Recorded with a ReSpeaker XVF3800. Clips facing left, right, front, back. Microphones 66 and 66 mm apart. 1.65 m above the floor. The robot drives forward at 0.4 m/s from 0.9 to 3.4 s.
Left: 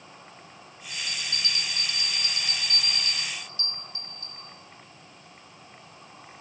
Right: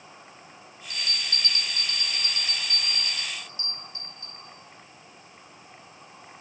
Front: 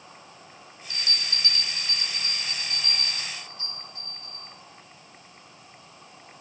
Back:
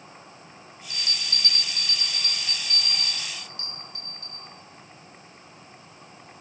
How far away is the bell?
About 0.6 m.